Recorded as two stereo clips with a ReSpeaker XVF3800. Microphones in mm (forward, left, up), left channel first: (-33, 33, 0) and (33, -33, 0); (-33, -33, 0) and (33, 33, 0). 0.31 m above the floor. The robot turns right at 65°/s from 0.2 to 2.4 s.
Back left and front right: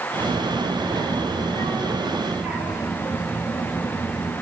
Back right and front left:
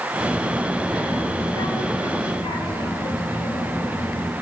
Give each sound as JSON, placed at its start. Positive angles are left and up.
{"t": 0.2, "sound": "a child speaking", "azimuth_deg": 95, "distance_m": 5.5}